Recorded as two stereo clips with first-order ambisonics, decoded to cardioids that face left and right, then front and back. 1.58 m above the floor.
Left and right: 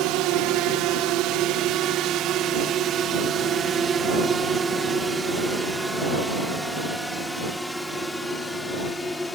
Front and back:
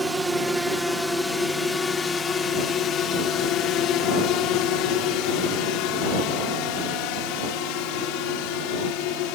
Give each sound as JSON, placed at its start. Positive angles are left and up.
{"t": 0.0, "sound": "a drone", "azimuth_deg": -95}